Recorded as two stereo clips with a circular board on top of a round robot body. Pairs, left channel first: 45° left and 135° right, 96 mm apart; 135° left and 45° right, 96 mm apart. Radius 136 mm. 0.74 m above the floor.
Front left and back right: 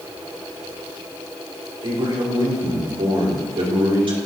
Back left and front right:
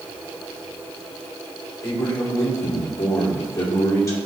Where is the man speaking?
165° right, 2.5 m.